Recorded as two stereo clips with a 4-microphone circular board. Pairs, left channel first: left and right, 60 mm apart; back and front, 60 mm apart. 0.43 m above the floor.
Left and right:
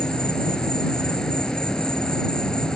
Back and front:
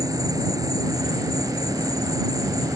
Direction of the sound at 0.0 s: 10° left.